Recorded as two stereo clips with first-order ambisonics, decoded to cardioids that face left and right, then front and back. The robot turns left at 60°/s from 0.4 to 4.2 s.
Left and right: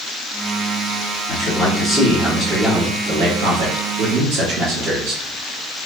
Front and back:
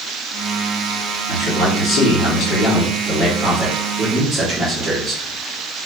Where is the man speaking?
60° left, 1.4 m; by 5.2 s 115° right, 1.4 m.